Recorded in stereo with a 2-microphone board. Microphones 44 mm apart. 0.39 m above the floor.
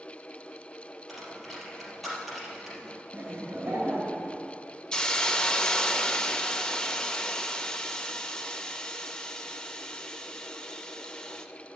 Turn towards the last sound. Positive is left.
turn(degrees=20)  # may be behind; listen again after turning